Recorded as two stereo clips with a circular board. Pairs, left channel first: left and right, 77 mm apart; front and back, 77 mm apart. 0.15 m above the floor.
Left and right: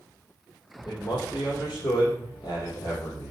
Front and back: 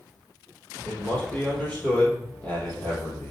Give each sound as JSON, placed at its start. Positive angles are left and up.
{"t": 0.8, "sound": "a man speaking", "azimuth_deg": 70, "distance_m": 4.0}